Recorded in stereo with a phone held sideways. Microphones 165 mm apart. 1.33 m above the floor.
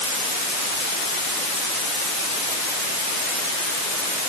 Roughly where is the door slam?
No door slam in this recording.